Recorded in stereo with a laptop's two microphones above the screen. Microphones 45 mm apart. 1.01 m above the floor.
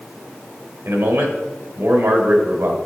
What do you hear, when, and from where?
0.8 s a man speaking: 75° right (ahead or behind), 1.7 m